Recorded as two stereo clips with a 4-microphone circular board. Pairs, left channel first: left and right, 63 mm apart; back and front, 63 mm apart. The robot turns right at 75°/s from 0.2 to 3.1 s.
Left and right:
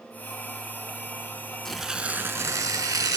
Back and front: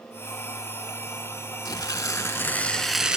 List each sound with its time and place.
1.6 s tearing paper: 175° left, 0.5 m; by 3.2 s 80° right, 0.5 m